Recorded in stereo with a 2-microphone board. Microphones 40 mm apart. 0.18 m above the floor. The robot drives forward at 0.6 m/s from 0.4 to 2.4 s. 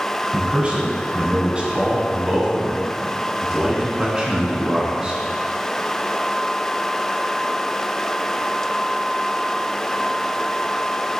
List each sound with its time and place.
0.3 s a man speaking: 30° right (ahead or behind), 1.3 m; by 5.2 s 25° right (ahead or behind), 1.7 m